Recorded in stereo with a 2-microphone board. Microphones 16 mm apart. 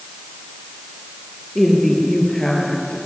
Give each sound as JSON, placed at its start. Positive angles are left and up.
{"t": 1.6, "sound": "a woman speaking", "side_deg": 25, "distance_m": 5.5}